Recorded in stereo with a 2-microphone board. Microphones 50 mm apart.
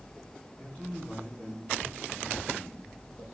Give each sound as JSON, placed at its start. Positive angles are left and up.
{"t": 0.6, "sound": "a man speaking", "side_deg": 35, "distance_m": 8.0}